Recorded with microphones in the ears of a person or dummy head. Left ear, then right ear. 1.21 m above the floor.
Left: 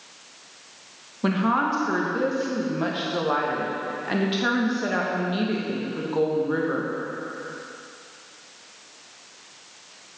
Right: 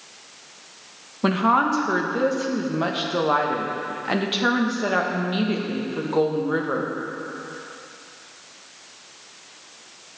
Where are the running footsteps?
I don't hear running footsteps.